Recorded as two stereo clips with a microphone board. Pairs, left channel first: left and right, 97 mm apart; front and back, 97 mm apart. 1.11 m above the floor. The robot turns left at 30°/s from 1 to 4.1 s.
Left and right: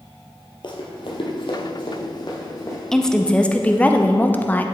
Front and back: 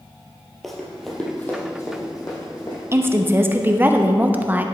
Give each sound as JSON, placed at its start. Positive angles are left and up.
{"t": 0.6, "sound": "running footsteps", "azimuth_deg": 90, "distance_m": 1.8}
{"t": 2.9, "sound": "a woman speaking", "azimuth_deg": 170, "distance_m": 0.6}